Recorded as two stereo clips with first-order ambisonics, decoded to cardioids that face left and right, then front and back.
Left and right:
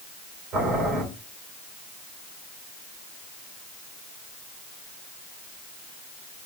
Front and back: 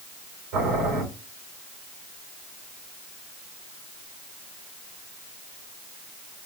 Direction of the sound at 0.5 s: 160° right.